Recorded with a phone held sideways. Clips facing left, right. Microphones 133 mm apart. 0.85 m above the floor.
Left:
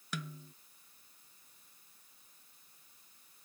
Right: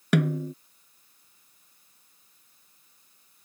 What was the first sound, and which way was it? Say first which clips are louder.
A snare drum: right 20 dB; 70° right (ahead or behind).